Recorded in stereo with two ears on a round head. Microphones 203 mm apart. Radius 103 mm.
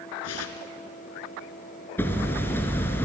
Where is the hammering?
10° left (ahead or behind), 2 m.